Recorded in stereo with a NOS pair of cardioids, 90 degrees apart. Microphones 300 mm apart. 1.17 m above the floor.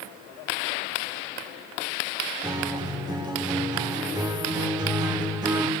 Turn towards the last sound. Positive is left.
turn(degrees=-15)